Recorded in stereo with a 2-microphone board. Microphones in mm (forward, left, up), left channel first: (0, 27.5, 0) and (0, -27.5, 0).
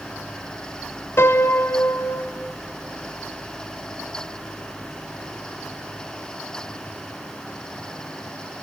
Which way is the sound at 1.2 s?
50° left (ahead or behind).